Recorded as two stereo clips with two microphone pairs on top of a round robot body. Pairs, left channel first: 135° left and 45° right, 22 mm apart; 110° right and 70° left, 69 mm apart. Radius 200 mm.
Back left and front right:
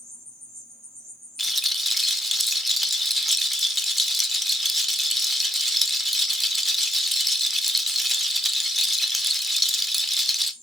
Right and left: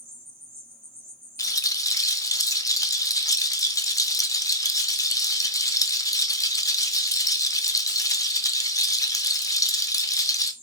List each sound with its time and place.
0.0 s an insect: 70° left, 2.5 m
1.4 s a rattle: 140° right, 0.7 m